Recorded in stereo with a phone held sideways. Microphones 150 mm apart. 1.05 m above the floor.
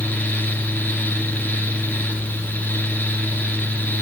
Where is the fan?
10° left (ahead or behind), 1.9 m.